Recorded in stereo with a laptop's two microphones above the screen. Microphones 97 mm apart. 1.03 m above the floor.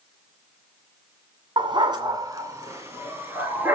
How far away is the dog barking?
About 1.8 m.